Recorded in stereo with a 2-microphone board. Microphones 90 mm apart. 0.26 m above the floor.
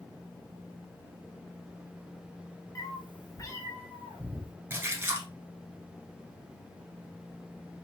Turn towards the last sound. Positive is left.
turn(degrees=-25)  # may be behind; listen again after turning